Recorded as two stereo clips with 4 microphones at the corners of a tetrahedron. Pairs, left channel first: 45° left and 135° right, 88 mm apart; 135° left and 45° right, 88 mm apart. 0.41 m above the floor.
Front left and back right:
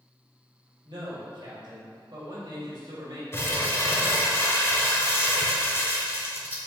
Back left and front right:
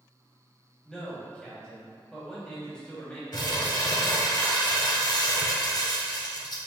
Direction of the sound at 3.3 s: 105° left.